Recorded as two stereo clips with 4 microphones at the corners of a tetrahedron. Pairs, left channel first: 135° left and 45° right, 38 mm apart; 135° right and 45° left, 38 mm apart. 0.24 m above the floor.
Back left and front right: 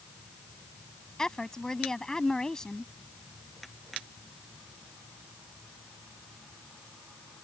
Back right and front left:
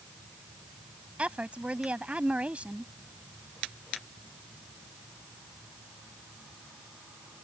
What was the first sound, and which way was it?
A woman speaking, 75° left.